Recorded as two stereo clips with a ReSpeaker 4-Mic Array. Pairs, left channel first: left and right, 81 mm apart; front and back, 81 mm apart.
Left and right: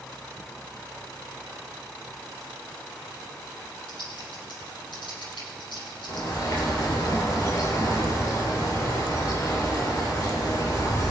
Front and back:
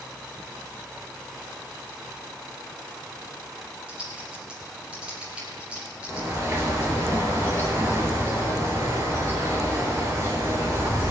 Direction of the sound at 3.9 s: 105° left.